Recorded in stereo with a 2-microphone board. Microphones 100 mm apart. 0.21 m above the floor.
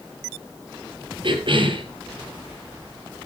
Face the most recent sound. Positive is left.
turn(degrees=-55)  # may be behind; listen again after turning